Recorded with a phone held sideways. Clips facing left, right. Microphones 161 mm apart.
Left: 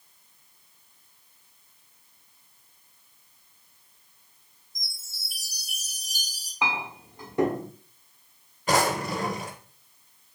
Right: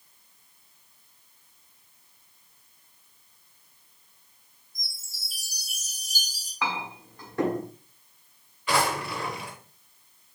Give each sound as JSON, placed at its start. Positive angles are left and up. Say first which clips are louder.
{"t": 4.8, "sound": "a chime", "louder": "even", "side_deg": 70, "distance_m": 2.5}
{"t": 6.6, "sound": "a clink", "louder": "left 1 dB", "side_deg": 20, "distance_m": 1.1}
{"t": 8.7, "sound": "a drawer", "louder": "left 2 dB", "side_deg": 45, "distance_m": 0.6}